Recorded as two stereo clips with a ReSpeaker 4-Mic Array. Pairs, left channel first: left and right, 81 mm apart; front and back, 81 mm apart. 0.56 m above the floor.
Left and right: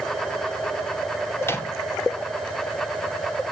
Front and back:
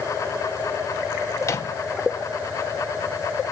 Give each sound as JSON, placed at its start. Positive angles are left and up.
{"t": 1.4, "sound": "a microwave", "azimuth_deg": 40, "distance_m": 1.2}